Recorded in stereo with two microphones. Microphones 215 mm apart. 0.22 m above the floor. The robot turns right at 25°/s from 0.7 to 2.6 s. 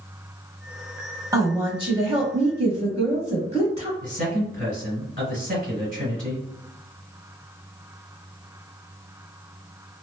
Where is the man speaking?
40° right (ahead or behind), 1.4 m.